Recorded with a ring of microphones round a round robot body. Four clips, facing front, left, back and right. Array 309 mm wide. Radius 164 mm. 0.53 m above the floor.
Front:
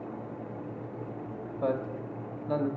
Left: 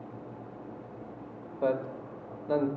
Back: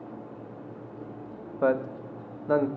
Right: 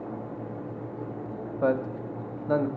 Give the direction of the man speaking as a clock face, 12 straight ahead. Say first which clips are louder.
Right 3 dB, back 5 dB; 5 o'clock.